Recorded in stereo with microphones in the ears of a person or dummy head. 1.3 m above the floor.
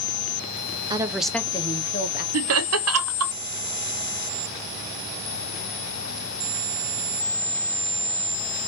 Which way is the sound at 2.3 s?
65° right (ahead or behind).